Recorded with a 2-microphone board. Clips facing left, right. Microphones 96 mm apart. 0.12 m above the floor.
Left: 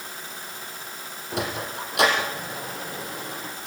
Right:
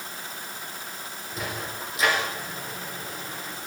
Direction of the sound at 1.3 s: 75° left (ahead or behind).